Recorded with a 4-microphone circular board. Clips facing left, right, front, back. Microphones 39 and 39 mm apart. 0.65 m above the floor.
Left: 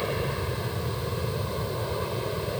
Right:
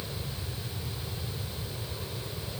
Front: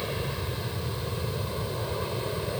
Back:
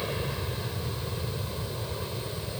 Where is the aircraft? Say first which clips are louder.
Left 10 dB, even; 90° left; by 2.6 s 55° left.